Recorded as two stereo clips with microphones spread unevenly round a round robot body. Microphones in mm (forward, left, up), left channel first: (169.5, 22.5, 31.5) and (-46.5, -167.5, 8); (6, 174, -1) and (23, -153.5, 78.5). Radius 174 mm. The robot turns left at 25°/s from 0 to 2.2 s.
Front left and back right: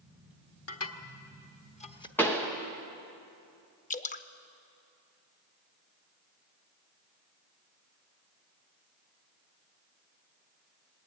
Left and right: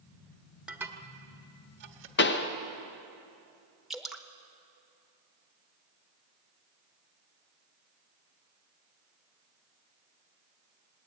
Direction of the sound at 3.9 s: 10° right.